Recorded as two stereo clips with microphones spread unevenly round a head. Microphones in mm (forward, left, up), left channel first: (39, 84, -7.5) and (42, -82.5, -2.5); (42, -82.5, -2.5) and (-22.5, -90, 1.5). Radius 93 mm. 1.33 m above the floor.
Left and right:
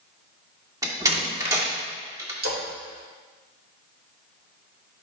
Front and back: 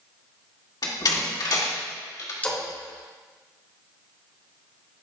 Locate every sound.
0.8 s a door slam: 20° right, 1.9 m
2.4 s a splash: 60° right, 2.5 m